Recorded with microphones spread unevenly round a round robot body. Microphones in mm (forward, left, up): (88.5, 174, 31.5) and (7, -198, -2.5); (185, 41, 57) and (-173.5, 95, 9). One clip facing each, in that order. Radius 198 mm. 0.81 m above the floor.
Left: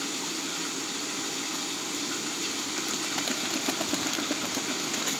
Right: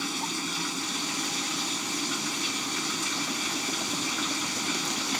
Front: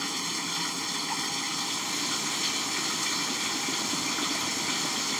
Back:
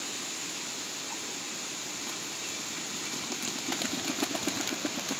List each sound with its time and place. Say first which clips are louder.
0.0 s running water: right 1 dB, front 6 dB; 40° right